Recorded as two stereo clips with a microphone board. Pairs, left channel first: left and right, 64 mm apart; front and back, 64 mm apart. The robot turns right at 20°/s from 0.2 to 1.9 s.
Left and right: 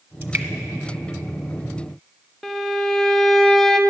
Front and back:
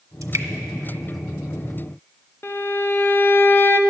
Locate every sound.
0.2 s dripping: 150° right, 0.9 m; by 0.5 s 145° right, 0.9 m
2.4 s a violin: 5° left, 0.5 m